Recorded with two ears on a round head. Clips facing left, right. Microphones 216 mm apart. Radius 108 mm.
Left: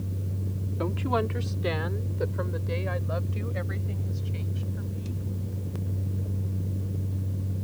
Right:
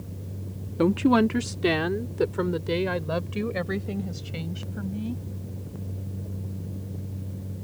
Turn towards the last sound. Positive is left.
turn(degrees=-75)  # may be behind; listen again after turning